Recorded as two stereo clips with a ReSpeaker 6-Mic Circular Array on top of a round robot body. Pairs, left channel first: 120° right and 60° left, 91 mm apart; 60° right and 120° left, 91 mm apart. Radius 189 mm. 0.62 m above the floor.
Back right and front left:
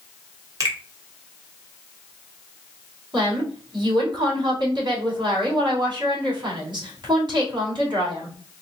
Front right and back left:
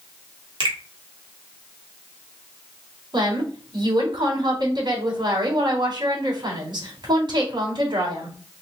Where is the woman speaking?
95° left, 3 m.